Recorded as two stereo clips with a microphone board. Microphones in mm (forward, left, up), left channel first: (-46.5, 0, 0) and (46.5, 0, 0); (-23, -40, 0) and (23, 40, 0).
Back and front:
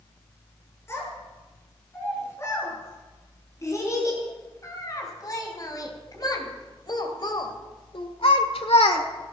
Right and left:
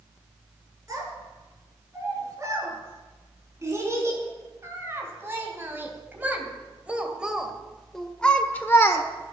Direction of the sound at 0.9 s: 115° left.